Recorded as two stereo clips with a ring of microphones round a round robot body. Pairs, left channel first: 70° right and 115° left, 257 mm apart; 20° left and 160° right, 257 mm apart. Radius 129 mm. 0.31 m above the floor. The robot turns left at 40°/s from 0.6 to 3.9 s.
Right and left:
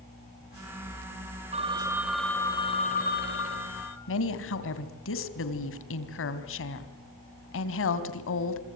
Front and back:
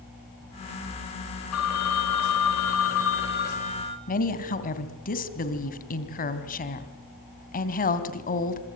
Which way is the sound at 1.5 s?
50° left.